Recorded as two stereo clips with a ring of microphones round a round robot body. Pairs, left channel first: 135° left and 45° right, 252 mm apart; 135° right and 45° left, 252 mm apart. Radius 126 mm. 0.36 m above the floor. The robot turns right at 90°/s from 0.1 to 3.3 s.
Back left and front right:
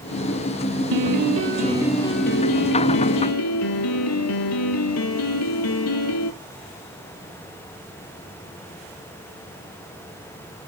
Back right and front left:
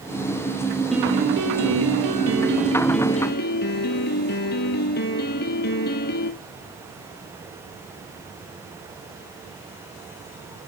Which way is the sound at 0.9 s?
45° right.